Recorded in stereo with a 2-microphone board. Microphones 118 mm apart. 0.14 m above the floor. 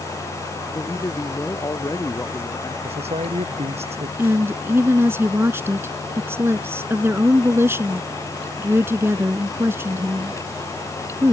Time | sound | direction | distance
0.8 | a man speaking | 30° left (ahead or behind) | ?
2.8 | a man speaking | 60° right (ahead or behind) | ?
4.2 | a woman speaking | 20° right (ahead or behind) | ?